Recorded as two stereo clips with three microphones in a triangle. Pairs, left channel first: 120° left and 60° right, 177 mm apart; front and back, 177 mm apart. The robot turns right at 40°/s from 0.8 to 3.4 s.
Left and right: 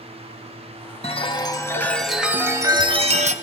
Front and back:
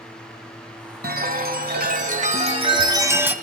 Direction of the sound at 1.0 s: 170° left.